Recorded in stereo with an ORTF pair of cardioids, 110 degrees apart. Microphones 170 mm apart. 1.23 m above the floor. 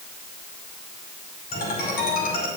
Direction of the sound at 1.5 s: 70° left.